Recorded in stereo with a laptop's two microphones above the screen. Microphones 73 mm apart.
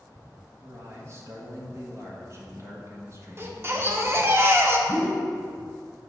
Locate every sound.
0.6 s a man speaking: 40° right (ahead or behind), 1.4 m
3.4 s a baby crying: 35° right (ahead or behind), 0.7 m
4.9 s a whoosh: 50° right (ahead or behind), 1.8 m